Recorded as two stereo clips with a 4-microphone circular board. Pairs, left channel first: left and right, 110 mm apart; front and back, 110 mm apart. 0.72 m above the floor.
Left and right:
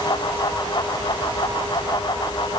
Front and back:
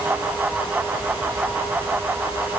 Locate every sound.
Only background noise.